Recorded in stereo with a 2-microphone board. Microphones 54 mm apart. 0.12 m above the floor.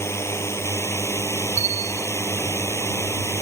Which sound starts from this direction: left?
A drone, at 0.0 s.